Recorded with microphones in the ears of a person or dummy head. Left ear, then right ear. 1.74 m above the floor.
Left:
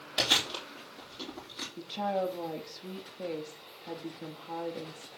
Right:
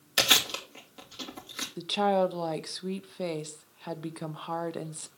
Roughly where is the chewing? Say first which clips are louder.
Right 4 dB; right.